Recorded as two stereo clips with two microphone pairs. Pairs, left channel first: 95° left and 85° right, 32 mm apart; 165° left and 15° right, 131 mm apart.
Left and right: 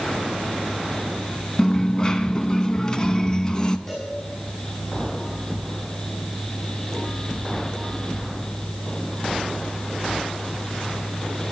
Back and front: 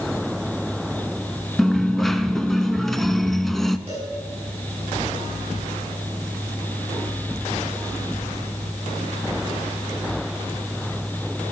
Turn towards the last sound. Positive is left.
turn(degrees=25)